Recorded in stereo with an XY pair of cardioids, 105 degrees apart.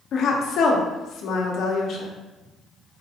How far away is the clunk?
No clunk in this recording.